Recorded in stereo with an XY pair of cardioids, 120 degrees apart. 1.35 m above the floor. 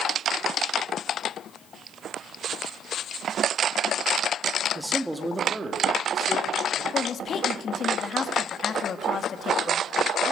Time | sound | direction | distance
4.8 | a man speaking | straight ahead | 1.8 m
6.9 | a woman speaking | 40° left | 1.8 m